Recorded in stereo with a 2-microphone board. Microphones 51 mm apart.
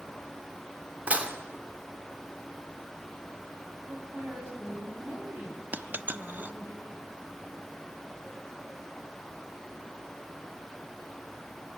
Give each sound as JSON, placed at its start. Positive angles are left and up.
{"t": 1.1, "sound": "dishes clattering", "side_deg": -25, "distance_m": 2.5}
{"t": 3.9, "sound": "a woman speaking", "side_deg": -55, "distance_m": 8.0}
{"t": 5.7, "sound": "a dropped coin", "side_deg": -35, "distance_m": 0.6}